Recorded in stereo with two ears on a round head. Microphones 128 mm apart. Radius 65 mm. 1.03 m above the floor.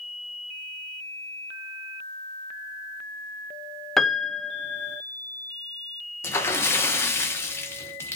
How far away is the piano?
About 0.7 m.